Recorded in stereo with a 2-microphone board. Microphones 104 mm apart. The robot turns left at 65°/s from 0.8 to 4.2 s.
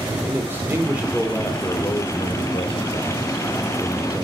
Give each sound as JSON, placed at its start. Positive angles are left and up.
{"t": 0.3, "sound": "a man speaking", "azimuth_deg": -160, "distance_m": 2.5}